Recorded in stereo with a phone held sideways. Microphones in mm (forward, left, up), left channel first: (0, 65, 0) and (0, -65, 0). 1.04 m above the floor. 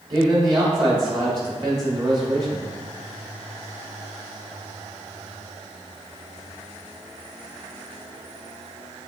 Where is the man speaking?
35° right (ahead or behind), 2.5 m.